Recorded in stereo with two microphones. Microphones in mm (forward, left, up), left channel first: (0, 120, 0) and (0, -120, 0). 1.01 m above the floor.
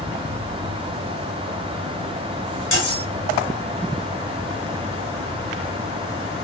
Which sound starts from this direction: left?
Cutlery clinking, at 2.7 s.